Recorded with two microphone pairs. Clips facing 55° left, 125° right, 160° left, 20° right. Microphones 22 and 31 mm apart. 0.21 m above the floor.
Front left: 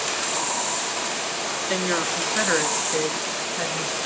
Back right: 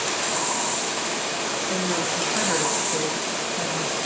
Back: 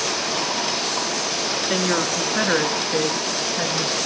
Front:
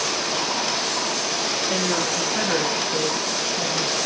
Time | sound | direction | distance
1.7 | a woman speaking | 100° left | 3 m